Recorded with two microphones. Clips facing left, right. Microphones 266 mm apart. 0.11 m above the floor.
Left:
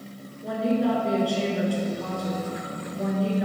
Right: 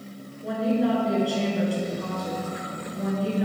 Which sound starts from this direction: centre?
A woman speaking, at 0.4 s.